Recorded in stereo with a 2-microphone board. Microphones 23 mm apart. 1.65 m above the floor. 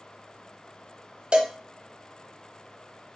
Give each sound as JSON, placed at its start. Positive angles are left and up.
{"t": 1.3, "sound": "a cowbell", "side_deg": -40, "distance_m": 0.6}